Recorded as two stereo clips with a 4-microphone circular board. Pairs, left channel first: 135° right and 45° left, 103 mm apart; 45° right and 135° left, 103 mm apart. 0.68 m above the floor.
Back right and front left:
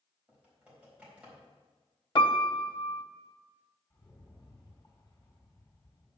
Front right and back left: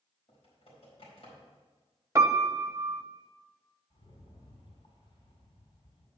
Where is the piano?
170° right, 0.7 m.